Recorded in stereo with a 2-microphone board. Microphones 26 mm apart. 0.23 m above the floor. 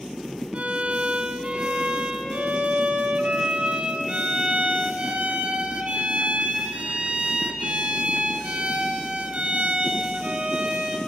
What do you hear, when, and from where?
0.5 s a violin: 55° right (ahead or behind), 1.2 m